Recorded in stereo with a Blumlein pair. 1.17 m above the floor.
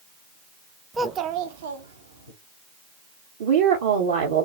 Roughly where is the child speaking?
Ahead.